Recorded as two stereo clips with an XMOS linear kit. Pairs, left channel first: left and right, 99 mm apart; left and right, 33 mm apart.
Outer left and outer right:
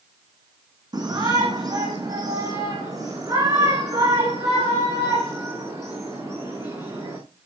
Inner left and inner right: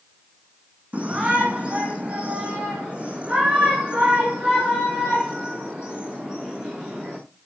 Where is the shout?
45° right (ahead or behind), 7.5 m; by 7.2 s 30° right (ahead or behind), 10 m.